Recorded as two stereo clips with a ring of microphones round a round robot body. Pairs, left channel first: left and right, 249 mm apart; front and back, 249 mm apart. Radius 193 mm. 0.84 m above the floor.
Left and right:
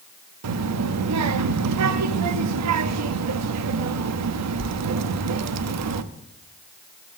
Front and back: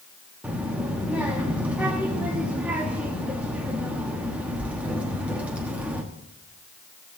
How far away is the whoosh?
I don't hear a whoosh.